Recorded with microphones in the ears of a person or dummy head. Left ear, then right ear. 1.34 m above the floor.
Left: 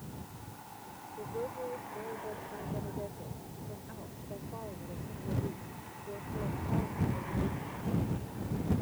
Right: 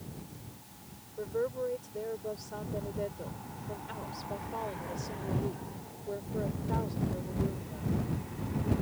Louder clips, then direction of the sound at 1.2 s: Right 5 dB; 70° right (ahead or behind).